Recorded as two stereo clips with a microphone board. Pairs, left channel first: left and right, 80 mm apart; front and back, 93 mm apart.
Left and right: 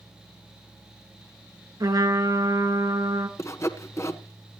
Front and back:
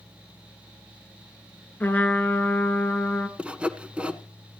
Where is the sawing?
110° left, 1.1 m.